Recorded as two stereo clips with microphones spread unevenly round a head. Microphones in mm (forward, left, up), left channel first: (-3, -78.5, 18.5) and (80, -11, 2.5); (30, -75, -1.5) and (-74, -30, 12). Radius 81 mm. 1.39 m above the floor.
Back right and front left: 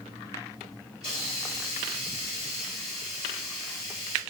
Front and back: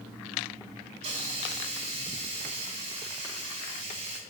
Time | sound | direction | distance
1.0 | a hiss | 170° left | 3 m